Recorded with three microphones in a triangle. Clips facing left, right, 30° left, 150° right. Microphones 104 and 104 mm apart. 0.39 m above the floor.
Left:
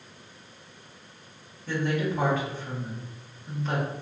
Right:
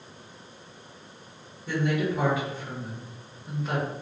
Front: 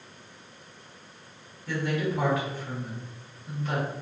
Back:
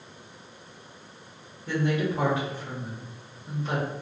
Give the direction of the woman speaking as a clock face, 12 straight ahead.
5 o'clock.